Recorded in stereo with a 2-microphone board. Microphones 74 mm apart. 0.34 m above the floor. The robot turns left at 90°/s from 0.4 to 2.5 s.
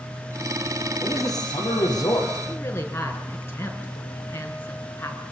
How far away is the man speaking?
About 8.5 m.